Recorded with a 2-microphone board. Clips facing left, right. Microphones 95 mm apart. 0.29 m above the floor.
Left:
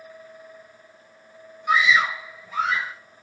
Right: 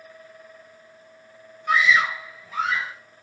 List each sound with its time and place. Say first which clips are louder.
1.7 s a scream: even; 10° left (ahead or behind), 1.4 m; by 3.0 s centre (ahead or behind), 1.8 m